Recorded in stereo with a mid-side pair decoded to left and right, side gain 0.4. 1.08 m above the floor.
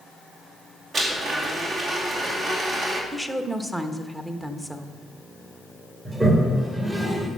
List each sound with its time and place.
0.9 s a blender: 60° right, 2.5 m
3.1 s a woman speaking: 20° right, 1.2 m
6.0 s a toilet flushing: 30° right, 2.5 m